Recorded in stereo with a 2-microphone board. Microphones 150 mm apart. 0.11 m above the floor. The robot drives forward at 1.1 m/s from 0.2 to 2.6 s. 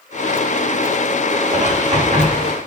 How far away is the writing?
About 6.5 m.